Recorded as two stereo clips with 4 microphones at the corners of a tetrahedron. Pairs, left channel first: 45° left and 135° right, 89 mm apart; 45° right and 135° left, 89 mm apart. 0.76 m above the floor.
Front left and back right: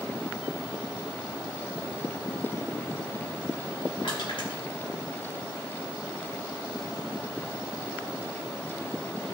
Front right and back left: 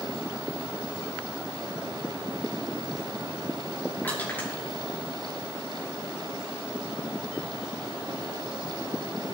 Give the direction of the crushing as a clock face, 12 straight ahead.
11 o'clock.